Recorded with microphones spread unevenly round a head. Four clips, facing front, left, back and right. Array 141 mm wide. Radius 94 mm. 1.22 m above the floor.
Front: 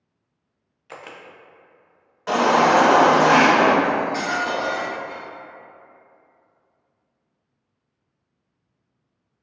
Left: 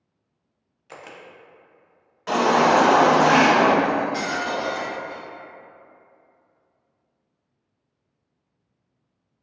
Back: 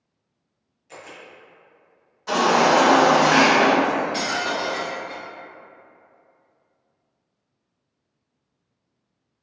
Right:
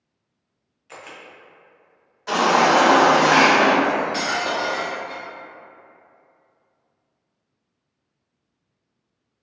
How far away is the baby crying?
About 1.7 m.